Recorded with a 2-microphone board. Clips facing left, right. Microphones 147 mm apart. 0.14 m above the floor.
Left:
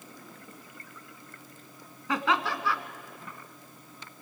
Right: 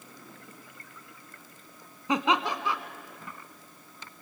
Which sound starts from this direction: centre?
Laughter, at 2.1 s.